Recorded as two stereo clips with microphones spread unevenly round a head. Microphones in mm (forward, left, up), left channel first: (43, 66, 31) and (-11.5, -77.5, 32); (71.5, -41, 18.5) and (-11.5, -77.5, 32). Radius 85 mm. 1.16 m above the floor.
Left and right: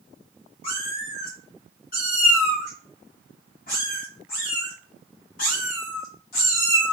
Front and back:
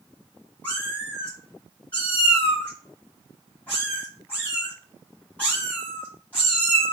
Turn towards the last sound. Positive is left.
turn(degrees=110)